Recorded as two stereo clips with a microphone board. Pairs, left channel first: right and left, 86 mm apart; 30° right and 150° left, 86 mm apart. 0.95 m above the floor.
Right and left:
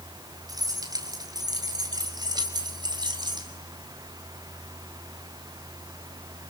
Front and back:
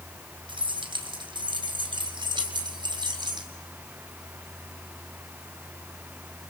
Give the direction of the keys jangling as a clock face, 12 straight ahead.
8 o'clock.